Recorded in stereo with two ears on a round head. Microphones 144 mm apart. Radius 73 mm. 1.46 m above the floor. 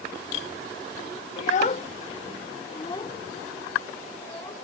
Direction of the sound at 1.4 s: 45° left (ahead or behind).